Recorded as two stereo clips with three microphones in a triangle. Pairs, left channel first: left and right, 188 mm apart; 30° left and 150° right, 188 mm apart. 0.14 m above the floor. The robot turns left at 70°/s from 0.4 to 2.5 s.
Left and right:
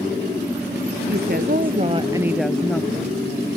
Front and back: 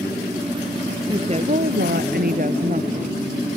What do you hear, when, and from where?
1.1 s a woman speaking: 85° right; by 3.2 s 175° left